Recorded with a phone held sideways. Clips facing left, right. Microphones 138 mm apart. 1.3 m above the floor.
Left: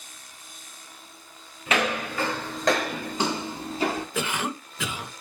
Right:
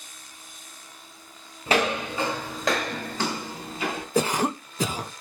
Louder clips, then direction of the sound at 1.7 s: Right 2 dB; 35° right (ahead or behind).